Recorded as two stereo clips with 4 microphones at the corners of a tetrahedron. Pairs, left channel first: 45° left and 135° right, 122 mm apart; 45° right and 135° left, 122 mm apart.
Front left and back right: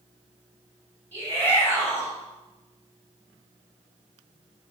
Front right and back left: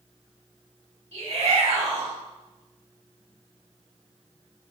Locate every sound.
1.1 s a shout: 115° left, 3.5 m